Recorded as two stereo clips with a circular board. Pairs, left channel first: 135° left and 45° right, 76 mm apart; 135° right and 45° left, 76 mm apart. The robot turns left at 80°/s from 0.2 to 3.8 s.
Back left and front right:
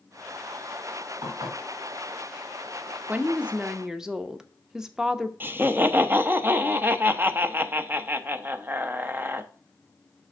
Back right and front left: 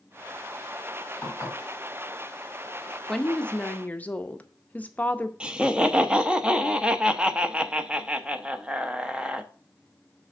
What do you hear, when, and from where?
1.2 s dishes clattering: 70° right, 5 m; by 1.6 s 95° right, 5 m
3.1 s a woman speaking: 60° right, 0.5 m; by 5.3 s 115° right, 0.5 m
5.4 s laughter: 20° right, 0.5 m